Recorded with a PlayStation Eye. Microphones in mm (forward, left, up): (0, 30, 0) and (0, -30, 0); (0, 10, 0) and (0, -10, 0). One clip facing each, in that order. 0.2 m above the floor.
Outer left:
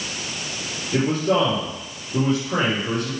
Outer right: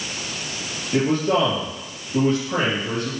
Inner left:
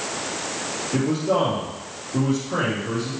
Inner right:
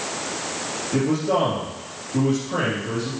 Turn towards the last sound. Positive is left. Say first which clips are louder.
# even, inner right 1 dB
turn(degrees=5)  # may be behind; listen again after turning